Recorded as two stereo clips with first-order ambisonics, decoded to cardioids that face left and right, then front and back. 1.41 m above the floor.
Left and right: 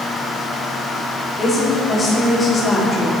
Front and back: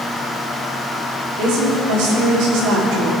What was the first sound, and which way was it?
A woman speaking, 175° left.